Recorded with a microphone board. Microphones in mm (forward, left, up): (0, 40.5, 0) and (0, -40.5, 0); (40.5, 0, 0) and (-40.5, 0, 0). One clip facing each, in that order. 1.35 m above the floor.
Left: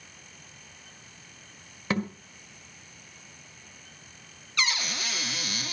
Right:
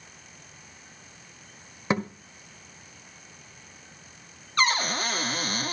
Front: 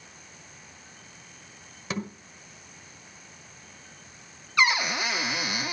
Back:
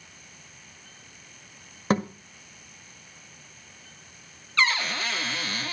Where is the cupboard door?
70° right, 0.5 m.